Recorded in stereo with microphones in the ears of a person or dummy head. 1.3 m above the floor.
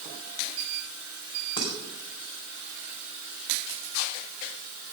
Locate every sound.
1.6 s dishes clattering: 25° left (ahead or behind), 4 m